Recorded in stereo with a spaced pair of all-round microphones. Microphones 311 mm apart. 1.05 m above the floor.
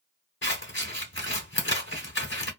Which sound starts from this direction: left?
Scissors, at 0.4 s.